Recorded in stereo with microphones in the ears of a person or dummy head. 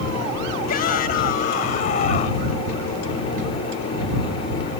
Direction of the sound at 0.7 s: 55° left (ahead or behind).